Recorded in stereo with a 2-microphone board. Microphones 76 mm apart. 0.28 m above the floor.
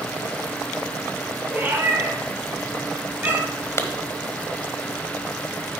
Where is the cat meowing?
25° right (ahead or behind), 4 m.